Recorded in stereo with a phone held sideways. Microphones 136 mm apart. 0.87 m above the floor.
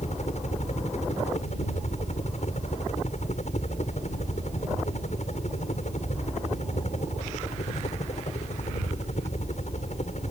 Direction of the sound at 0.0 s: 55° left (ahead or behind).